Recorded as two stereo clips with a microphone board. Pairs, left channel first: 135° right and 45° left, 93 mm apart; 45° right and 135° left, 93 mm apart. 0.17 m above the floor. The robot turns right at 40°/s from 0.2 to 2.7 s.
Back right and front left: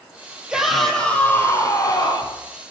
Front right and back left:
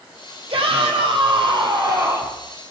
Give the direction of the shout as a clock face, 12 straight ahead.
8 o'clock.